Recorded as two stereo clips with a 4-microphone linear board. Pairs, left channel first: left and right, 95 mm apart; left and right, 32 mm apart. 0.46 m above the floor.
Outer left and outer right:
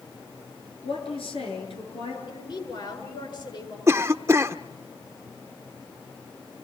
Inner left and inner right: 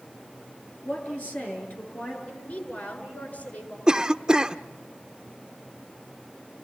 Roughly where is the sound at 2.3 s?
Left.